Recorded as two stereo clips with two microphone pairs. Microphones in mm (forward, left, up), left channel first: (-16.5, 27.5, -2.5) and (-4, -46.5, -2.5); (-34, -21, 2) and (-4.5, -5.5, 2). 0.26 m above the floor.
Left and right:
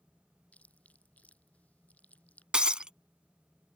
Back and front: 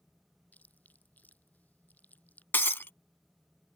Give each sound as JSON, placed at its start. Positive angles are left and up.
{"t": 0.5, "sound": "chewing", "azimuth_deg": 170}
{"t": 2.5, "sound": "breaking glass", "azimuth_deg": -155}